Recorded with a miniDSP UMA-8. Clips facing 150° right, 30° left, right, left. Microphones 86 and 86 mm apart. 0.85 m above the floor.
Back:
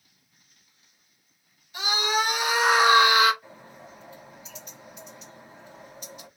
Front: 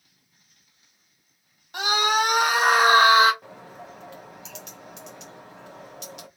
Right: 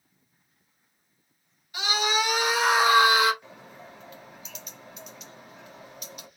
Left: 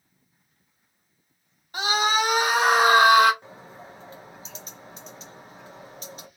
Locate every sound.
1.7 s a scream: 45° left, 2 m; by 3.3 s 85° left, 1.4 m
3.4 s a bird: 35° left, 1.3 m